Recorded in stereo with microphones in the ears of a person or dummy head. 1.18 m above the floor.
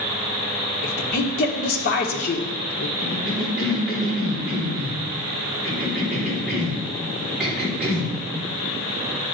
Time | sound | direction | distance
0.8 | a woman speaking | 50° left (ahead or behind) | 1.4 m
3.0 | a cough | 5° right (ahead or behind) | 3.5 m